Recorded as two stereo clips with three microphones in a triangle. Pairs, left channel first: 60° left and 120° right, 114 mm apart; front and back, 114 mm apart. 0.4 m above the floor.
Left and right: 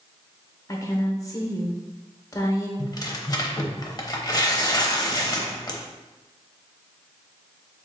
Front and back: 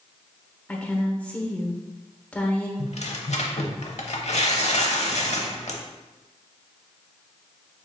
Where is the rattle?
No rattle in this recording.